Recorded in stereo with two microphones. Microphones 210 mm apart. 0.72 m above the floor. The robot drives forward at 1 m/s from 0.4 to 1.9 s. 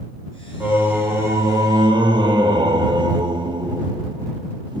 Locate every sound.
0.6 s singing: 10° right (ahead or behind), 2 m; by 4.8 s 20° right (ahead or behind), 1.0 m